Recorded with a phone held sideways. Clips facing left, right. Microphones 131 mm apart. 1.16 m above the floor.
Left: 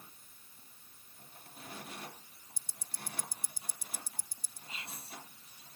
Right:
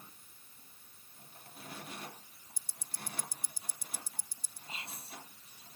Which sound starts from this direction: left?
Ticking, at 2.6 s.